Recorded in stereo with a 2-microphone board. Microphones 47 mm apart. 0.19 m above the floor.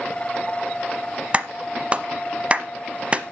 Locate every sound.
1.3 s a clap: 25° right (ahead or behind), 0.9 m